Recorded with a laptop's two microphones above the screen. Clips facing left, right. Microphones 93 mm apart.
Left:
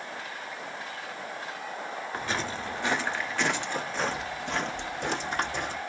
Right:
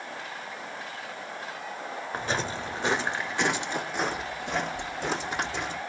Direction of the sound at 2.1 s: 25° right (ahead or behind).